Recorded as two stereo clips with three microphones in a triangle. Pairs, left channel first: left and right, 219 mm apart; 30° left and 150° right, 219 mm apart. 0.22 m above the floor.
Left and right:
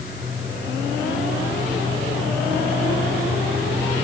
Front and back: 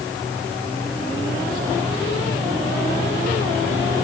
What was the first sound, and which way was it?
Only background noise.